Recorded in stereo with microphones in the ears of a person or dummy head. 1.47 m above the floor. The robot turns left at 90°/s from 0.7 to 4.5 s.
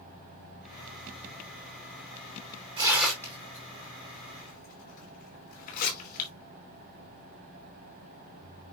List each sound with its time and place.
2.8 s tearing paper: 25° right (ahead or behind), 5 m; by 6.3 s 50° left (ahead or behind), 5 m